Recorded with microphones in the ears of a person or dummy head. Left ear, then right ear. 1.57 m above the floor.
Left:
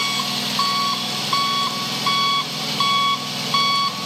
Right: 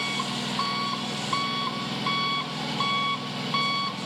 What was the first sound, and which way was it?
An engine running, 30° left (ahead or behind).